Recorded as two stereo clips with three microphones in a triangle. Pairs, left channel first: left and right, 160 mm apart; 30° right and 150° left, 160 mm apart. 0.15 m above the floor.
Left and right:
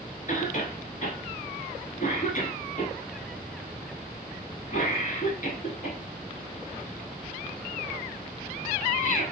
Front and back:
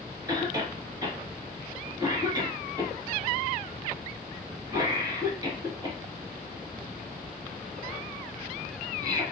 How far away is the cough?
About 1.7 m.